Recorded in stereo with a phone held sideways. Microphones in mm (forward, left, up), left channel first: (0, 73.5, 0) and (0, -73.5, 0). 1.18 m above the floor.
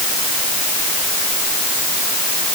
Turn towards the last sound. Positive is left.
No sound to turn to.